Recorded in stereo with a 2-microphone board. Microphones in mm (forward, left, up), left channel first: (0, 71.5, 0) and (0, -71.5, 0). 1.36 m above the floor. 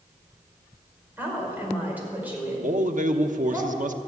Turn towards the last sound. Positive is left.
turn(degrees=-65)  # may be behind; listen again after turning